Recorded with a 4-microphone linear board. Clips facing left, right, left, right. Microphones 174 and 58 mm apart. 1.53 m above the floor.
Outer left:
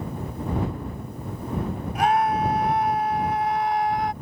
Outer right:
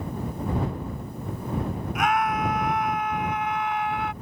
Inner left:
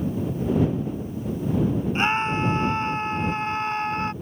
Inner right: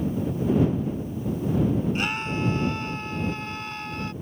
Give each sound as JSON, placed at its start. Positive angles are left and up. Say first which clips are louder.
{"t": 1.9, "sound": "a scream", "louder": "outer left 4 dB, inner left 5 dB", "side_deg": 30}